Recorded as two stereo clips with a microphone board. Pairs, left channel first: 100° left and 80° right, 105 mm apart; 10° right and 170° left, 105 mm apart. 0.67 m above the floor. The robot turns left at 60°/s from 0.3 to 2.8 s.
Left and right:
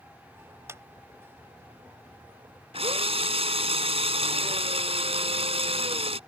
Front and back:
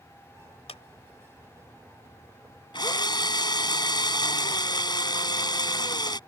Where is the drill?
55° right; by 6.2 s 60° right.